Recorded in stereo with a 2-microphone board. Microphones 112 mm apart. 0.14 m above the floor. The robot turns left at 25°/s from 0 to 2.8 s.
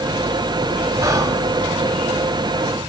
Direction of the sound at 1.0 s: 30° right (ahead or behind).